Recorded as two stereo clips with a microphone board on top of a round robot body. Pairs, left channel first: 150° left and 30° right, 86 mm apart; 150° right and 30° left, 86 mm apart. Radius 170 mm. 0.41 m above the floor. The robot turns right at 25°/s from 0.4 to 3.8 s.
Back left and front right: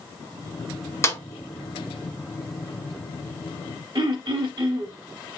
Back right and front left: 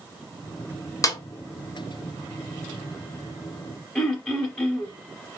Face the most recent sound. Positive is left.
turn(degrees=-75)